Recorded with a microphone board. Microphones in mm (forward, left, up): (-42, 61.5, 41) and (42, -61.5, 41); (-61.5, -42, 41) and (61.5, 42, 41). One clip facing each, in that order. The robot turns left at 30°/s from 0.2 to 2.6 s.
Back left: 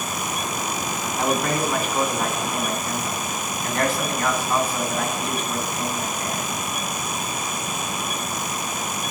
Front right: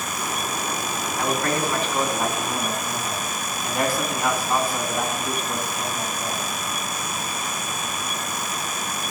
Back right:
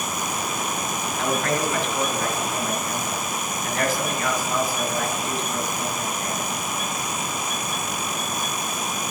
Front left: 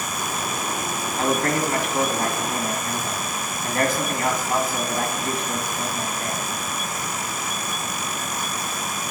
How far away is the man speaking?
About 1.9 m.